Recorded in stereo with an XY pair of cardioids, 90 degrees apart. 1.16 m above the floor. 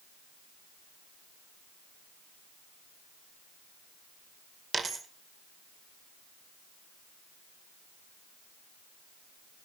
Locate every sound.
4.7 s a dropped coin: 40° right, 2 m